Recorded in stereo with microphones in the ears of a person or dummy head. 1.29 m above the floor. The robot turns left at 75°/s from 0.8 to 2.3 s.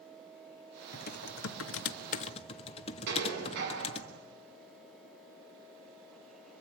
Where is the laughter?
No laughter in this recording.